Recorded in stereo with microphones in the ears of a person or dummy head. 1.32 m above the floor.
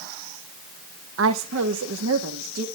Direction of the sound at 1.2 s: 80° right.